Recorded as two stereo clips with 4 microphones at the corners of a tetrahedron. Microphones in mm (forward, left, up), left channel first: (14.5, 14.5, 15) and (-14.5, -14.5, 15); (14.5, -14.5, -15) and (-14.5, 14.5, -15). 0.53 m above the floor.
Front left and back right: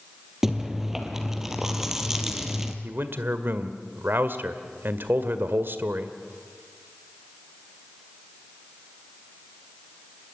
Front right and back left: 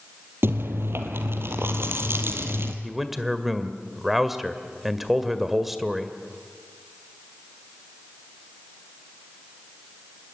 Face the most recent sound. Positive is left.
turn(degrees=-145)